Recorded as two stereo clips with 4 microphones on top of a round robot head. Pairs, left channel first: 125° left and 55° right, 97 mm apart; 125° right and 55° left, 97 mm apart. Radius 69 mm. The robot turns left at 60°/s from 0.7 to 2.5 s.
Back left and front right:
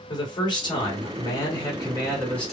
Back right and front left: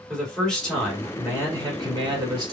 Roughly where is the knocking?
I don't hear knocking.